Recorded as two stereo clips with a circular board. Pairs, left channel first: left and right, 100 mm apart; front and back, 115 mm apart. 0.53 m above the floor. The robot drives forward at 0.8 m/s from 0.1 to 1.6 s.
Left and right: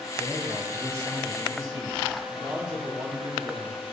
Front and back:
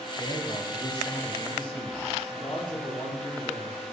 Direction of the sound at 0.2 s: 35° right.